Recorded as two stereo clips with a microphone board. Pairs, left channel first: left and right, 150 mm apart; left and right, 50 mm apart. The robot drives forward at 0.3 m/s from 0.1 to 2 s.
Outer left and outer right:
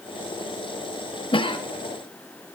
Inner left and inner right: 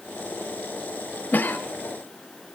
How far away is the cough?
About 0.9 m.